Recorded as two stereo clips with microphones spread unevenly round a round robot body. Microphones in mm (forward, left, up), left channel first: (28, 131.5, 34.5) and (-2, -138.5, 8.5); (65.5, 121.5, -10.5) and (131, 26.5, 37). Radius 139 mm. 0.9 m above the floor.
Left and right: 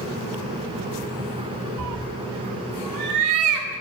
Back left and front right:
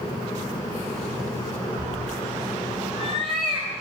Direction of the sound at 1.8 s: 125° right.